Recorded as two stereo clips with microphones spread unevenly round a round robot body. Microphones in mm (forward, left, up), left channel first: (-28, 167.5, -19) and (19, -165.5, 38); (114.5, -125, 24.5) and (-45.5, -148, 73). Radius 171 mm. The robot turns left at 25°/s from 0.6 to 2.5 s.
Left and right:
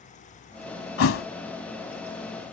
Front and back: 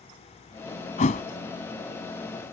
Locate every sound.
1.0 s a thud: 65° left; by 1.3 s 55° left